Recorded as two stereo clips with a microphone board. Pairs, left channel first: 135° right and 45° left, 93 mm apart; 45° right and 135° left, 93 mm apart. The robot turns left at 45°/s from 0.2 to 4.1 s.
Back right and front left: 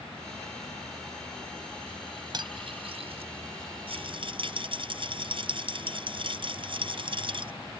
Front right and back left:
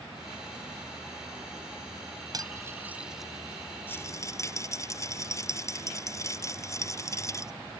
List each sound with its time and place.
2.3 s cutlery clinking: 85° left; by 3.3 s 45° left
3.9 s a rattle: 25° left; by 7.5 s 15° left